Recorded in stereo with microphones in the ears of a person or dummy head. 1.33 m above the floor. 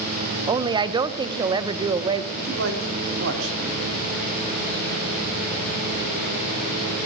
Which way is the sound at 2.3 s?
75° right (ahead or behind).